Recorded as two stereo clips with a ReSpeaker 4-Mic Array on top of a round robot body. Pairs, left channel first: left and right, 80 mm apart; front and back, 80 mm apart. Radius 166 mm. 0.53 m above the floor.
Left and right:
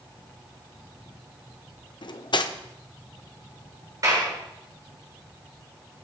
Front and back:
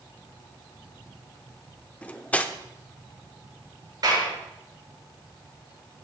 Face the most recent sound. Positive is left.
turn(degrees=-140)